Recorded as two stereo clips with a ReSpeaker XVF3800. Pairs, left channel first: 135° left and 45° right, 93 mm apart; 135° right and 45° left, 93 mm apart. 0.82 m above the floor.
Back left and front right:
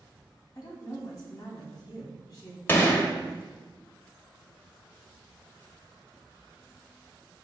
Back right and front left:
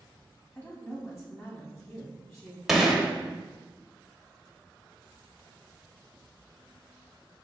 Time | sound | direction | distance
0.6 | a woman speaking | 170° left | 1.3 m
2.7 | a gunshot | 130° left | 0.6 m